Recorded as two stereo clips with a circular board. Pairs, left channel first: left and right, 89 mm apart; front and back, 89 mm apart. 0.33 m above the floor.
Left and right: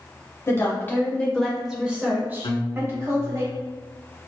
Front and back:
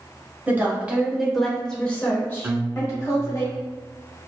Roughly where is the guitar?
Left.